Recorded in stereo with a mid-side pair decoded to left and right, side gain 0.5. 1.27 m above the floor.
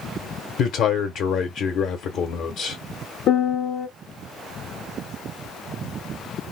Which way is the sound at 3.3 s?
60° left.